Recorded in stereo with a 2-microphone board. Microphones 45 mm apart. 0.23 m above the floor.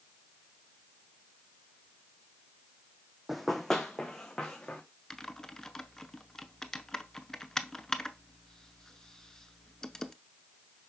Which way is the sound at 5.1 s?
10° left (ahead or behind).